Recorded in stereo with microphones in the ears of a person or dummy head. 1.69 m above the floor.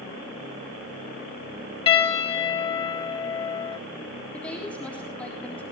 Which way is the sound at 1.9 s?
35° left (ahead or behind).